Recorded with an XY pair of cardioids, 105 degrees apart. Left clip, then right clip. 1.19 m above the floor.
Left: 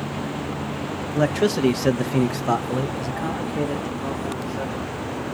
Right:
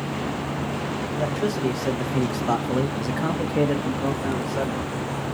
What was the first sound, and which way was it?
A man speaking, 70° left.